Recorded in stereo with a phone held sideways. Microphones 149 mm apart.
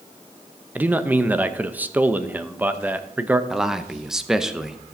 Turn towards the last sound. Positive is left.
turn(degrees=-5)  # may be behind; listen again after turning